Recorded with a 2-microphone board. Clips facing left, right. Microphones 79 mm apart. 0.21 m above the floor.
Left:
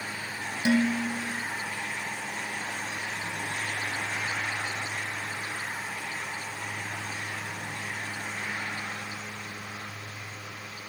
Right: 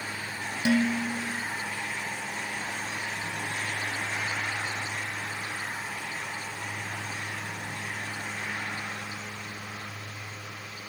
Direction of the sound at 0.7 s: 15° left (ahead or behind).